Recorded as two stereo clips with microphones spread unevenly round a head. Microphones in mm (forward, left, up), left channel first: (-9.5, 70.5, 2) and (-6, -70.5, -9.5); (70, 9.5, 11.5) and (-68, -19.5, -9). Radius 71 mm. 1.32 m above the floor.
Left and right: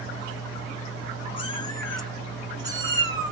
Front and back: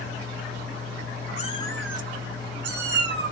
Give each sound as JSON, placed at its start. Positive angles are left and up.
{"t": 1.4, "sound": "a cat meowing", "azimuth_deg": 45, "distance_m": 1.0}